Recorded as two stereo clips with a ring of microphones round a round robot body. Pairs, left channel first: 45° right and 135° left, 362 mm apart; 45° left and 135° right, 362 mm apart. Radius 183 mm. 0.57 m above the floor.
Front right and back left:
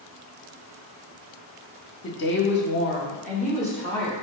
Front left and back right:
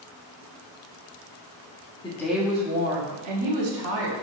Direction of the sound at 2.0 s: 20° right.